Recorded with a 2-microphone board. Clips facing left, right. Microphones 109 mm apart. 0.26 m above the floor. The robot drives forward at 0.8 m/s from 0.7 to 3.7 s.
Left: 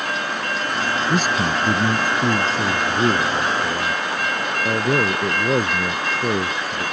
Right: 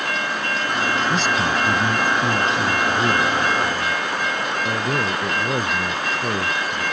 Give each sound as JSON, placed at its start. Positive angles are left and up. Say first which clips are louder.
{"t": 1.1, "sound": "a man speaking", "louder": "even", "side_deg": 55}